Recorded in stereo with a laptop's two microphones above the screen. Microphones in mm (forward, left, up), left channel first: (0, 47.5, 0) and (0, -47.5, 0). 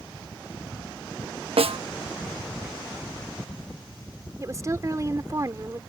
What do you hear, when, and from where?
1.6 s a snare drum: 80° right
4.4 s a woman speaking: 35° right (ahead or behind)